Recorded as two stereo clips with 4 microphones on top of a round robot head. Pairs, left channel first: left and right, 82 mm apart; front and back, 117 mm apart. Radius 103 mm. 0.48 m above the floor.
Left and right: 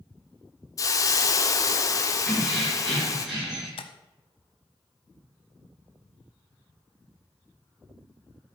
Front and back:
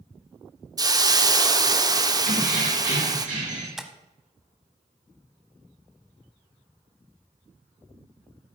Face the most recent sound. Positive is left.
turn(degrees=95)